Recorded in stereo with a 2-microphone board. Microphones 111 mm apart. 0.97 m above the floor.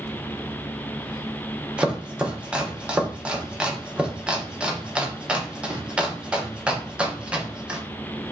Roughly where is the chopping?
Centre.